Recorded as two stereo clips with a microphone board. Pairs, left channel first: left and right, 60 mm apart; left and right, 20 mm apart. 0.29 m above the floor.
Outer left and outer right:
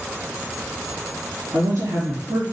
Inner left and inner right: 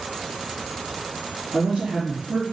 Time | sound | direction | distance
1.5 | a woman speaking | 65° right (ahead or behind) | 3.5 m